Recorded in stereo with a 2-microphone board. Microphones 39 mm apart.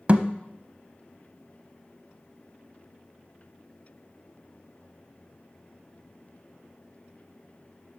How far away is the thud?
About 0.5 m.